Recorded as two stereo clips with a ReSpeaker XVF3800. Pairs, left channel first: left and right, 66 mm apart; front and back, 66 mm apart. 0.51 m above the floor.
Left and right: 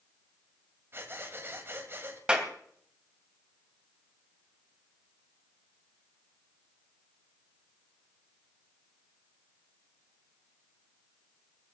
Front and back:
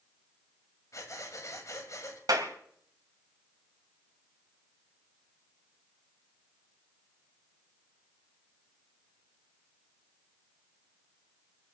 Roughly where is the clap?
Behind.